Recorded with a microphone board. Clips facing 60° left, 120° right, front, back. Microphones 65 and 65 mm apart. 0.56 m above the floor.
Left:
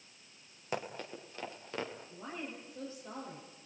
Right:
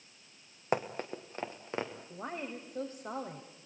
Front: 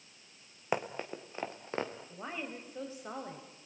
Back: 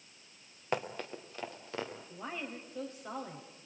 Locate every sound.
0.7 s running footsteps: 75° right, 2.5 m; by 1.9 s 55° right, 3.5 m
2.1 s a woman speaking: 80° right, 2.5 m